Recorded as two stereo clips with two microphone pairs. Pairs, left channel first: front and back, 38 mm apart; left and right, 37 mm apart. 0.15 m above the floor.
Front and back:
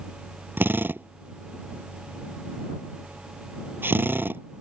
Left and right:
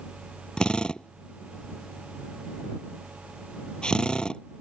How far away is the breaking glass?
No breaking glass in this recording.